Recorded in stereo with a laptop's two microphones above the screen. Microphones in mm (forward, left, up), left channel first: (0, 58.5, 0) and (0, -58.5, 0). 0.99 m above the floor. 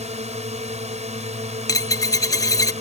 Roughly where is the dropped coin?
Left.